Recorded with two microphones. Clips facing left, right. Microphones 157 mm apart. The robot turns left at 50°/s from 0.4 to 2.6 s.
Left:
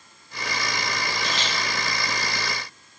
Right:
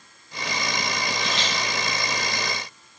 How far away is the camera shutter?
About 3 m.